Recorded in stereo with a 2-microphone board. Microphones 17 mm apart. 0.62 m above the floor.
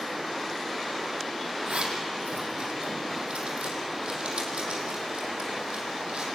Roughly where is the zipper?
Right.